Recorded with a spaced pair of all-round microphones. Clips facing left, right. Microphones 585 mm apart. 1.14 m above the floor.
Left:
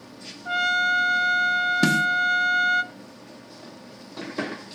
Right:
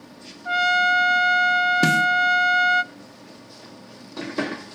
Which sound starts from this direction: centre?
A snare drum, at 1.8 s.